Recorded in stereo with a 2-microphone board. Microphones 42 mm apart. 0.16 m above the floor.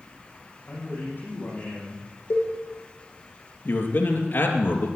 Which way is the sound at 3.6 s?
65° left (ahead or behind).